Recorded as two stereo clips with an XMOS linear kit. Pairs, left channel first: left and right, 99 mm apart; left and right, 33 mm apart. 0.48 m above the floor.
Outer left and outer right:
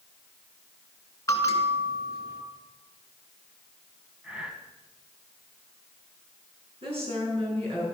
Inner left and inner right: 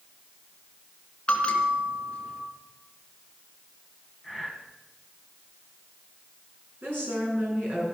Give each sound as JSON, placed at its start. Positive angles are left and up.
{"t": 1.3, "sound": "a bell", "side_deg": 30, "distance_m": 2.0}
{"t": 4.2, "sound": "breathing", "side_deg": -10, "distance_m": 1.8}
{"t": 6.8, "sound": "a woman speaking", "side_deg": -65, "distance_m": 7.0}